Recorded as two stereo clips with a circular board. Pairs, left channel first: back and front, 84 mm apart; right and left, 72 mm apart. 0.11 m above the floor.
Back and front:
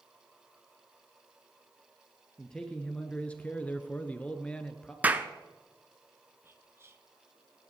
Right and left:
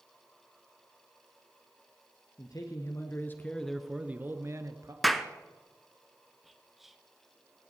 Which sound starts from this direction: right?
A man speaking, at 2.4 s.